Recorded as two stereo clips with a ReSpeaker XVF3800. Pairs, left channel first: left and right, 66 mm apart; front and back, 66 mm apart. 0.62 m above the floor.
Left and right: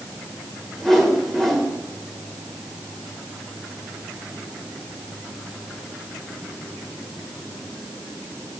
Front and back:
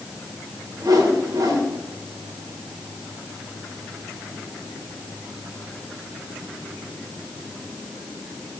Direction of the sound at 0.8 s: 175° left.